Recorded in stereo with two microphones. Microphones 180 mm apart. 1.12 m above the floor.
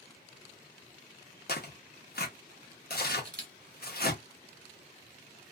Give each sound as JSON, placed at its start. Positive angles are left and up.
{"t": 1.5, "sound": "tearing paper", "side_deg": 60, "distance_m": 0.8}
{"t": 3.2, "sound": "a camera shutter", "side_deg": -50, "distance_m": 1.2}